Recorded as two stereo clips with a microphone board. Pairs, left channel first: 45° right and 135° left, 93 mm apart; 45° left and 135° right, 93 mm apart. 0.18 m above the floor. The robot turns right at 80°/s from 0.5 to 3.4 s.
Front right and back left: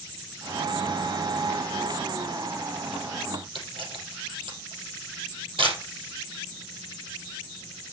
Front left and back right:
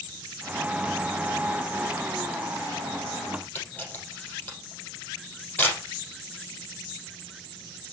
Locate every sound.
3.5 s a camera shutter: 115° left, 5 m